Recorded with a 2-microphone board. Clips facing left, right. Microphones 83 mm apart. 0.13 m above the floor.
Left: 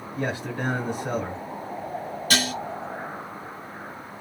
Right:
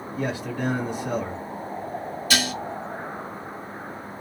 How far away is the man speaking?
About 1.3 m.